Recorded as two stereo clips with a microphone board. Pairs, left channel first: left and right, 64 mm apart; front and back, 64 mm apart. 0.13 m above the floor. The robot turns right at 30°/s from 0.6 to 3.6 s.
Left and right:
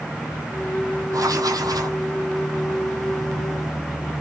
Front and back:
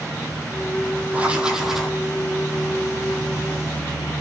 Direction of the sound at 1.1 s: 115° right.